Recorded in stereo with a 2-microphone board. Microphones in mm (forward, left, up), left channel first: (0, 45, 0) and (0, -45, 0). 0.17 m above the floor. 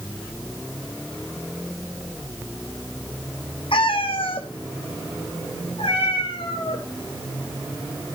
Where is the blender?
No blender in this recording.